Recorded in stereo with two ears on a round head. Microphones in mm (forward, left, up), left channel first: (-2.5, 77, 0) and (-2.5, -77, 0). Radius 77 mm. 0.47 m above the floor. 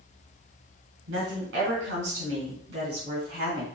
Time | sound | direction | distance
1.1 | a woman speaking | 80° right | 4 m